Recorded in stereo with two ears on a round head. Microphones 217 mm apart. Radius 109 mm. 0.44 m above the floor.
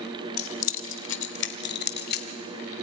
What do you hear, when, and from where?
0.4 s keys jangling: 60° left (ahead or behind), 1.0 m; by 2.3 s 45° left (ahead or behind), 1.6 m